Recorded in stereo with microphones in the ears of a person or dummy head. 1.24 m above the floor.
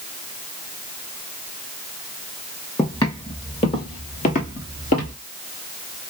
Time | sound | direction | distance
2.8 | footsteps | 30° left (ahead or behind) | 2 m